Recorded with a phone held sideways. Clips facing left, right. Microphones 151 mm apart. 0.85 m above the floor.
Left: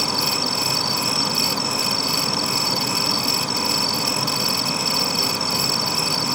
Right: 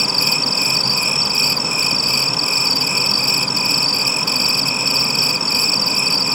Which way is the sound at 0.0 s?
5° right (ahead or behind).